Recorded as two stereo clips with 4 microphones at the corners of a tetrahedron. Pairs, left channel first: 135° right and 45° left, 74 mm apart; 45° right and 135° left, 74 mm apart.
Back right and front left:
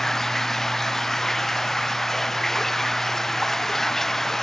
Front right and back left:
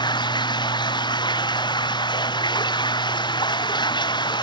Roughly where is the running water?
Ahead right.